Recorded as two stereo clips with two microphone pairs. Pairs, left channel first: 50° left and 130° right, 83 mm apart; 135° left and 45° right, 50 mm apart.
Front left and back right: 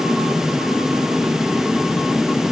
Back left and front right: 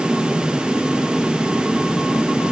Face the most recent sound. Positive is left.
No sound to turn to.